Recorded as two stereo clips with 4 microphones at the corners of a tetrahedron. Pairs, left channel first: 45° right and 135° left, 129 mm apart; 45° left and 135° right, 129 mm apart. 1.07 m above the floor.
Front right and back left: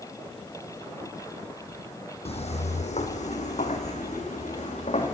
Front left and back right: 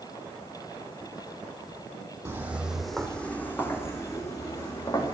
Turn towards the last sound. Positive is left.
turn(degrees=-15)